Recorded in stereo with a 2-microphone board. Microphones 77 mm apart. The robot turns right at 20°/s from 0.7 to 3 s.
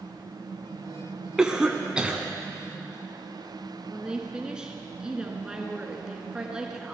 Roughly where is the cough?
Centre.